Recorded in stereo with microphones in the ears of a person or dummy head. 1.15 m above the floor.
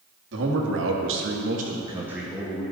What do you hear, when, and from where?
0.3 s a man speaking: 65° right (ahead or behind), 1.4 m; by 2.6 s 15° left (ahead or behind), 1.1 m